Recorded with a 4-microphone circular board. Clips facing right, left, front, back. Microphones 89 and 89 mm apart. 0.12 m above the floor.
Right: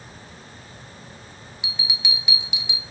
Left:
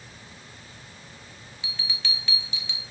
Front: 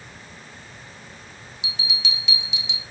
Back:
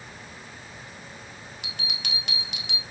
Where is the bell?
160° right, 1.1 m.